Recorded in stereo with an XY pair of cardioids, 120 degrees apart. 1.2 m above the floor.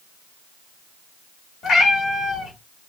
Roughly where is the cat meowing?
Ahead left.